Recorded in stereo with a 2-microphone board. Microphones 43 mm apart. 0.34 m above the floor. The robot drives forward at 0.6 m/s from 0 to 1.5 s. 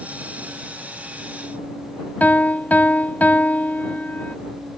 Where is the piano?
40° left (ahead or behind).